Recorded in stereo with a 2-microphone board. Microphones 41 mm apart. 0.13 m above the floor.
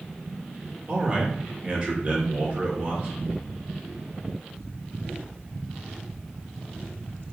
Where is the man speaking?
35° right (ahead or behind), 1.8 m.